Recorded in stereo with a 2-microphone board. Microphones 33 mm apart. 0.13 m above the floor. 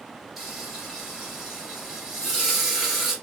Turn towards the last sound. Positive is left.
turn(degrees=-10)  # may be behind; listen again after turning